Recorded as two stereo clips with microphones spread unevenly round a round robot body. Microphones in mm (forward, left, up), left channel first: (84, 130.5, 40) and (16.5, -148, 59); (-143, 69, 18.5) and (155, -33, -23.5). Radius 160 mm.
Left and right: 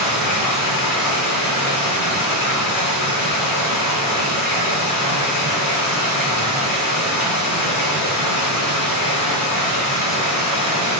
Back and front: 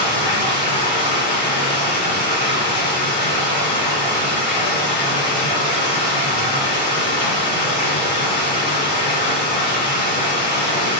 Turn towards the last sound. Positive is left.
turn(degrees=95)